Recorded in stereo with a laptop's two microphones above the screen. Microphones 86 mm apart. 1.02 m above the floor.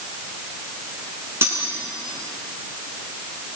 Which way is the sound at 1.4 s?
30° right (ahead or behind).